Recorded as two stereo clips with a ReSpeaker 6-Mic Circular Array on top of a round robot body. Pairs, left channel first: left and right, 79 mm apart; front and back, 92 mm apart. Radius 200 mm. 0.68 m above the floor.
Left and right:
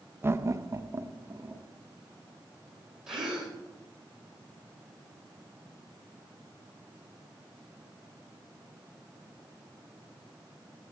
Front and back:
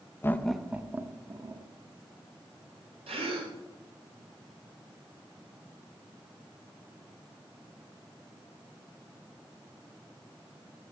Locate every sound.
0.2 s laughter: 50° right, 0.8 m; by 1.7 s 145° right, 1.4 m
3.1 s a gasp: 175° right, 2.5 m